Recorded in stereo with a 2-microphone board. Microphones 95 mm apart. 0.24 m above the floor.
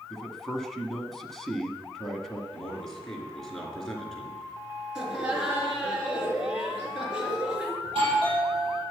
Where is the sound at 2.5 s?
5° left (ahead or behind), 4 m.